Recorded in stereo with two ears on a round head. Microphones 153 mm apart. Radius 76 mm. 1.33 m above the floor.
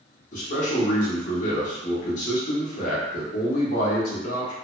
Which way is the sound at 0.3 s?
50° left (ahead or behind).